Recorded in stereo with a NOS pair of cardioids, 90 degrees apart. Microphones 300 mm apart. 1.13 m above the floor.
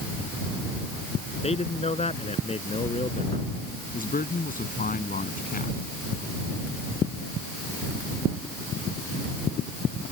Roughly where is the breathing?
No breathing in this recording.